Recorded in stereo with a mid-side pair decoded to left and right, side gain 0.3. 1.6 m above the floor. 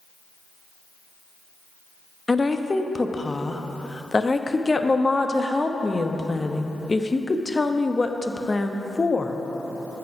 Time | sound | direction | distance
2.3 | a woman speaking | 30° left | 0.8 m